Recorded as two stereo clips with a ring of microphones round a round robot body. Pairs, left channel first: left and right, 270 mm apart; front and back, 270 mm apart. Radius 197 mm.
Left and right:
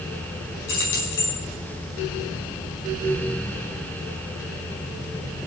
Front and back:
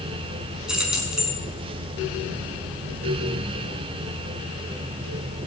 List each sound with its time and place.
0.7 s keys jangling: 95° left, 5.5 m